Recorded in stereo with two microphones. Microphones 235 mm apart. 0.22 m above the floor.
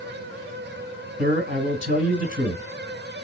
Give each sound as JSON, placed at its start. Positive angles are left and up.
{"t": 1.2, "sound": "a man speaking", "side_deg": -40, "distance_m": 1.9}